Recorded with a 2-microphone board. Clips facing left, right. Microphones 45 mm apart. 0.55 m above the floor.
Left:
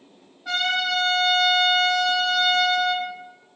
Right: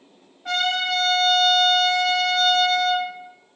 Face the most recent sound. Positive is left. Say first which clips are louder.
# right 1 dB
turn(degrees=-50)  # may be behind; listen again after turning